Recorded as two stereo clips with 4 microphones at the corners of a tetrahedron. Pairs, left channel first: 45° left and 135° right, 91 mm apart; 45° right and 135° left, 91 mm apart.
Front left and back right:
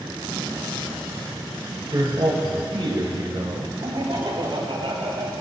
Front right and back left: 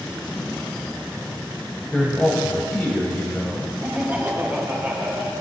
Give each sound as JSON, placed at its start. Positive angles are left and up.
{"t": 1.9, "sound": "a man speaking", "azimuth_deg": -120, "distance_m": 1.4}
{"t": 3.8, "sound": "laughter", "azimuth_deg": -155, "distance_m": 2.5}